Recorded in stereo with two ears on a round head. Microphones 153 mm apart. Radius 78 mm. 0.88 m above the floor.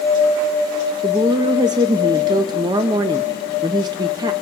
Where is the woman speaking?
25° right (ahead or behind), 0.6 m.